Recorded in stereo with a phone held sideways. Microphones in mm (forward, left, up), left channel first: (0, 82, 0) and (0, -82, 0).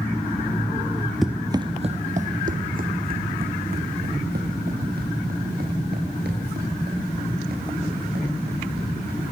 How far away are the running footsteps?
About 1.0 m.